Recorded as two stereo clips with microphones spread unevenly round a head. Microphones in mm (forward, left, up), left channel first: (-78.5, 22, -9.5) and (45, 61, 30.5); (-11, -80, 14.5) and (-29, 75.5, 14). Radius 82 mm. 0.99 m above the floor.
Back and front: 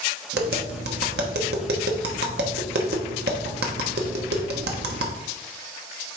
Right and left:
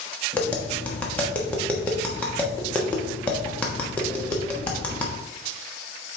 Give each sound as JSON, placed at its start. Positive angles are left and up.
{"t": 0.3, "sound": "tapping", "azimuth_deg": 0, "distance_m": 1.0}